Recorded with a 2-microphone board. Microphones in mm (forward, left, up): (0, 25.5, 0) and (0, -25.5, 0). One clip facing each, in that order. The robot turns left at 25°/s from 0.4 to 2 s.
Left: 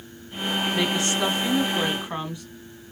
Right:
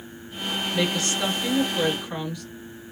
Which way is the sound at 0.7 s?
25° left (ahead or behind).